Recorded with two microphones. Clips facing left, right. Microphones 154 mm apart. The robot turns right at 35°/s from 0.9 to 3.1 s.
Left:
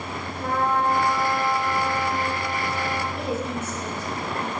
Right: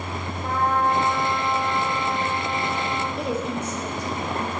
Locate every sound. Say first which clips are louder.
0.4 s a trumpet: even; 60° left, 1.5 m; by 3.1 s 135° left, 1.5 m
3.2 s a woman speaking: right 1 dB; 20° right (ahead or behind), 3 m